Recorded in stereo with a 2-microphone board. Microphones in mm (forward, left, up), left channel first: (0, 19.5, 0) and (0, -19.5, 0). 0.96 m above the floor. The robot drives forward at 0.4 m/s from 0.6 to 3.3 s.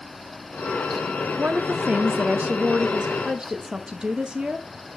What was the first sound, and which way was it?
A woman speaking, 45° right (ahead or behind).